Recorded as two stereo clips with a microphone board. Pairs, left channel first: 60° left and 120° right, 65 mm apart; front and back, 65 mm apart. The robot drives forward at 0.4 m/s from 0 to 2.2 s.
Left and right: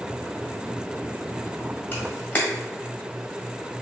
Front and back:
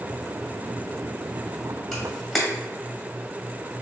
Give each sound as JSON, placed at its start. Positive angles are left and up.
{"t": 1.9, "sound": "a camera shutter", "azimuth_deg": 85, "distance_m": 1.3}